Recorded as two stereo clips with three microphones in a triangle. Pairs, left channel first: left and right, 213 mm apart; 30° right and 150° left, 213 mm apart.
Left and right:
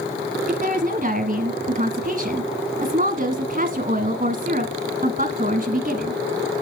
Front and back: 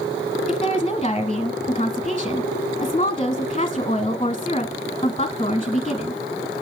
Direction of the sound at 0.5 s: 75° right.